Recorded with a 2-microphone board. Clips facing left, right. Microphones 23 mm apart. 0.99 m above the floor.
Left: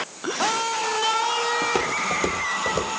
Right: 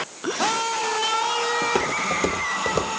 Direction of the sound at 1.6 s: 10° left (ahead or behind).